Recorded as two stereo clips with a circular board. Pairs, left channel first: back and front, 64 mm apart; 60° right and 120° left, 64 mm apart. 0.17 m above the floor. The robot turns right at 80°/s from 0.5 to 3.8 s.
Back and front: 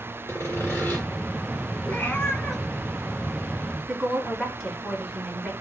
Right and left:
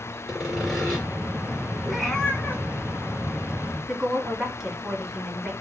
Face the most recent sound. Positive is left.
turn(degrees=55)